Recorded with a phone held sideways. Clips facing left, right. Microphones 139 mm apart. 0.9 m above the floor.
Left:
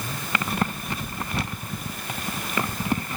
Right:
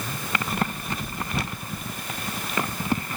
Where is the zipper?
No zipper in this recording.